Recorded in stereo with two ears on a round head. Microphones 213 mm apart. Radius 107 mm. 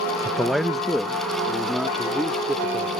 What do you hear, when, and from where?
0.2 s a man speaking: centre (ahead or behind)